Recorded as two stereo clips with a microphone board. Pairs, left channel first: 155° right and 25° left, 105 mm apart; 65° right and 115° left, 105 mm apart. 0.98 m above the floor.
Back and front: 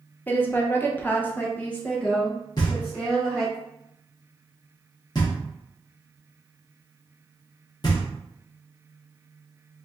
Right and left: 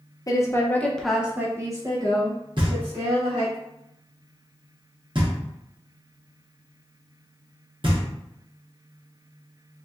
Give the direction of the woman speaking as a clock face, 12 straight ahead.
3 o'clock.